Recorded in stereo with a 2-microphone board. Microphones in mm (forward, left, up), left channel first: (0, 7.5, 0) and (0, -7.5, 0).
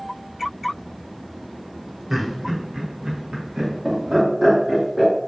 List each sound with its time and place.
2.1 s laughter: 30° right (ahead or behind), 1.2 m; by 5.1 s 70° right (ahead or behind), 3 m